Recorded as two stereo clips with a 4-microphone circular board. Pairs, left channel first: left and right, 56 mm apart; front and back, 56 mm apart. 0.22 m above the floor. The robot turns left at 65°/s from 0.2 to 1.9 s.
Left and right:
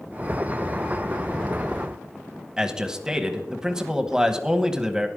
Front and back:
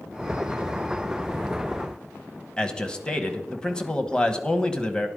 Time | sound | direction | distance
2.6 | a man speaking | 40° right | 1.0 m